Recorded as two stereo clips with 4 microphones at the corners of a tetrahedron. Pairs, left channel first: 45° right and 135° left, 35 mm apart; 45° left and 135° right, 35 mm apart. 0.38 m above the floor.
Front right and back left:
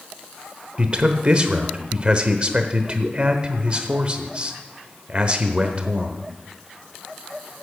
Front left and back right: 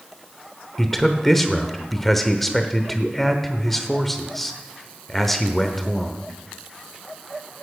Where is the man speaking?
125° left, 0.8 m.